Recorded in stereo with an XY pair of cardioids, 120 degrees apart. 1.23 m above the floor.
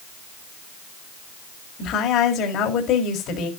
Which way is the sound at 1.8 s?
70° left.